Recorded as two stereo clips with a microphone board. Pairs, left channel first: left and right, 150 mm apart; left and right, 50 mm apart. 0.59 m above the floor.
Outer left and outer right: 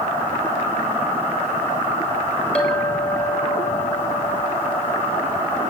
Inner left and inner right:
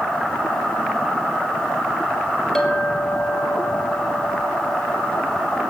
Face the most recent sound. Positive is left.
turn(degrees=5)  # may be behind; listen again after turning